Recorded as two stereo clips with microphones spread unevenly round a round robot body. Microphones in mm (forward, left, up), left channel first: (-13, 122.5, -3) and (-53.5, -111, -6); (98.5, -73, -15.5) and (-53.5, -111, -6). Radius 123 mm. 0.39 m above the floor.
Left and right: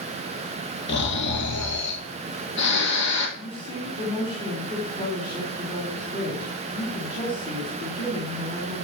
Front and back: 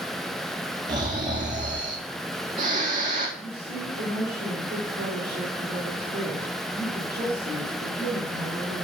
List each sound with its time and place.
0.9 s snoring: 120° left, 2 m
3.4 s a woman speaking: 145° left, 4 m